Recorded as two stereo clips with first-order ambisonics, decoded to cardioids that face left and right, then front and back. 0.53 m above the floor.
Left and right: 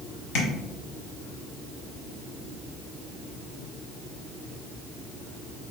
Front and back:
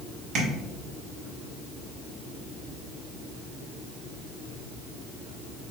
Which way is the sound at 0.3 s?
125° left.